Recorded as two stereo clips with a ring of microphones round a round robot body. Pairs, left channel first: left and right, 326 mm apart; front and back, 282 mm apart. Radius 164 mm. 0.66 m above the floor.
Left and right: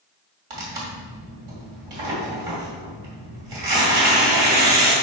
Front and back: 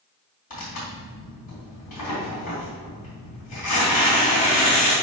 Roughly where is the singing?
I don't hear singing.